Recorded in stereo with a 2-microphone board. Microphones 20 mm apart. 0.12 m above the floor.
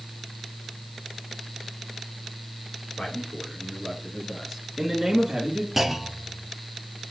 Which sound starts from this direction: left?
A man speaking, at 3.0 s.